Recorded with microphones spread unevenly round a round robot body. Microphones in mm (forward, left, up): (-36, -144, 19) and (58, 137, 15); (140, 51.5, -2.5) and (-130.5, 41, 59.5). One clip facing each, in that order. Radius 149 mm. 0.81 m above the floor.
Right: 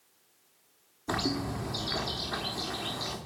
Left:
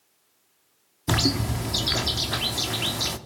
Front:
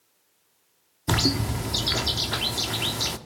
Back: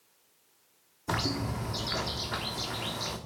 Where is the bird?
35° left, 1.2 m.